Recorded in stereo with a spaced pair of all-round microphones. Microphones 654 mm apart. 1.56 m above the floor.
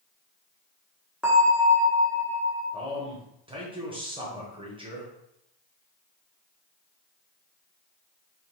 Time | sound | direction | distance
1.2 | a bell | centre (ahead or behind) | 1.1 m
2.7 | a man speaking | 10° right (ahead or behind) | 1.1 m